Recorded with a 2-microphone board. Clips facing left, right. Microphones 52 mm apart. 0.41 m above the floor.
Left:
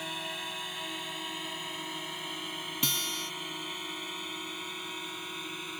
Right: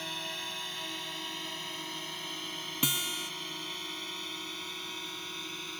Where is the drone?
10° left (ahead or behind).